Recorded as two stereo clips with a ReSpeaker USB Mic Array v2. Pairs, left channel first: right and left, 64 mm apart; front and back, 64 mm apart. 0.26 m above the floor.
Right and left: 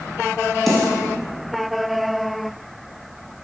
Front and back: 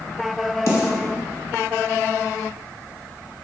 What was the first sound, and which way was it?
A snare drum, 5° right.